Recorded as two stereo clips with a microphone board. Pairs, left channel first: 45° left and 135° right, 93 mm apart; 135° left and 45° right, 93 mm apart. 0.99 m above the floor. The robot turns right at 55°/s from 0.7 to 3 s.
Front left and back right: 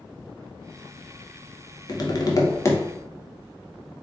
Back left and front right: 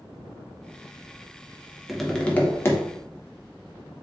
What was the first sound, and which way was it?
Tapping, 40° left.